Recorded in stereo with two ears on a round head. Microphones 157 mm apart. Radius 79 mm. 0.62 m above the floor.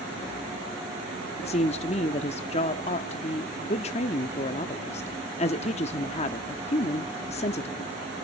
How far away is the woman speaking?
About 1.0 m.